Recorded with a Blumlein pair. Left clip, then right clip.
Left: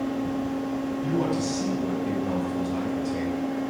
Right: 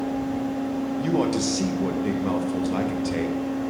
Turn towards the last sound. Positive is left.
turn(degrees=-25)